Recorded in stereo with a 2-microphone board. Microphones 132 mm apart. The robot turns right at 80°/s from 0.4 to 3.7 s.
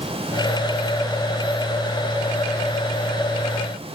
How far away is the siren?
No siren in this recording.